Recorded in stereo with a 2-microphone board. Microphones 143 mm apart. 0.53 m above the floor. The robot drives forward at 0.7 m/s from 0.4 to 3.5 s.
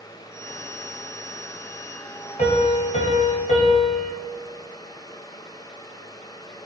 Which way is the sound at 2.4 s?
60° left (ahead or behind).